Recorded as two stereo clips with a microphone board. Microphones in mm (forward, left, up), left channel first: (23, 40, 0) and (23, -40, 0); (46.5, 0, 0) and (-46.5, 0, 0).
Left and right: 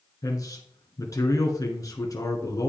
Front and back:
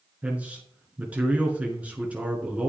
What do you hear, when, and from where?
0.2 s a man speaking: 110° left, 2 m